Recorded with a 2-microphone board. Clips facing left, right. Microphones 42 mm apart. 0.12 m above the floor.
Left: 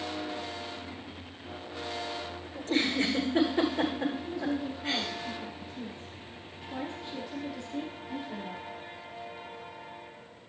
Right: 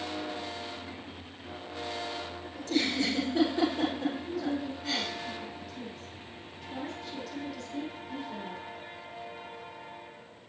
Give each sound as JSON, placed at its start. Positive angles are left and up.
{"t": 2.5, "sound": "a giggle", "side_deg": 35, "distance_m": 8.0}
{"t": 4.2, "sound": "a woman speaking", "side_deg": 20, "distance_m": 6.0}